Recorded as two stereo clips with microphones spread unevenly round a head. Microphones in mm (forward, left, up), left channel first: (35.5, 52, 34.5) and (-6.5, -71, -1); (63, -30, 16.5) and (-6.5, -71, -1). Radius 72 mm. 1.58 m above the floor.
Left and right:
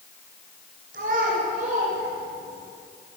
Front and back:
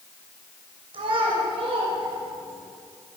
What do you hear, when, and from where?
0.9 s a child speaking: 145° right, 7 m; by 2.7 s 150° right, 7.5 m